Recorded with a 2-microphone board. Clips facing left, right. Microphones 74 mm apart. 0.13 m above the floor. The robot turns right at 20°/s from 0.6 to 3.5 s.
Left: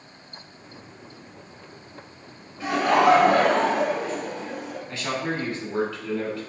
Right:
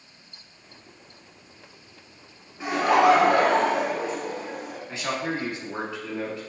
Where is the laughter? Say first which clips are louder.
Even; 20° right (ahead or behind), 1.4 m; by 4.8 s 25° right (ahead or behind), 1.4 m.